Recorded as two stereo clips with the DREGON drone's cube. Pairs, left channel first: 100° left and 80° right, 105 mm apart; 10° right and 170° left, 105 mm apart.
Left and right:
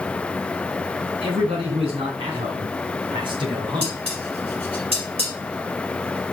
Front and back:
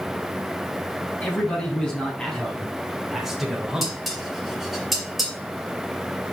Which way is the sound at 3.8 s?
100° right.